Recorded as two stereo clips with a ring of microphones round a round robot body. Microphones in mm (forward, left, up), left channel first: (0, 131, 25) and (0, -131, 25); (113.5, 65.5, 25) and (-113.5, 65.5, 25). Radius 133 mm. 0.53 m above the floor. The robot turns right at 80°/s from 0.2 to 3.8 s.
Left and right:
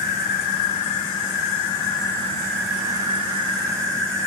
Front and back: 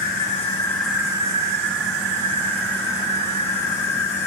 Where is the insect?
35° left, 3 m; by 4.3 s 35° right, 3 m.